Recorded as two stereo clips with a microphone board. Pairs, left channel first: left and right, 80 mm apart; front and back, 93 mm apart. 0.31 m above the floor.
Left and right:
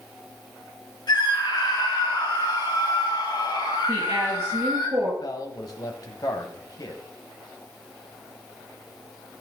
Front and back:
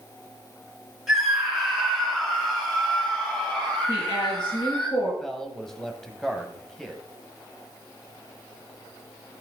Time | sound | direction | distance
1.1 | a scream | 95° left | 3 m
3.9 | a woman speaking | 30° right | 6.5 m
5.2 | a man speaking | 85° left | 1.6 m